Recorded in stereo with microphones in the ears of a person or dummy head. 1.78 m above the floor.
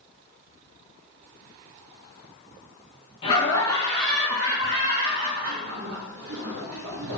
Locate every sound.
3.2 s laughter: 35° left (ahead or behind), 0.8 m; by 7.2 s 80° right, 1.4 m